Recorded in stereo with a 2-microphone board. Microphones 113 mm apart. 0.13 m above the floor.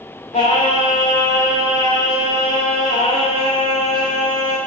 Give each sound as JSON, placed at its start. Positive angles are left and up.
{"t": 0.3, "sound": "singing", "side_deg": 85, "distance_m": 6.5}